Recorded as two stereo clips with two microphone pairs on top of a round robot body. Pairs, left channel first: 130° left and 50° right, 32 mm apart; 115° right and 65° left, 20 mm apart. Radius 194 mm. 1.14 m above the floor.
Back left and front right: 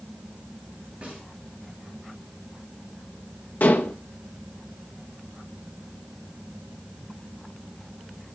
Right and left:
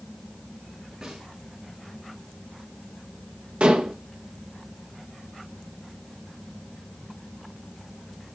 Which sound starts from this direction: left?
Dishes clattering, at 3.6 s.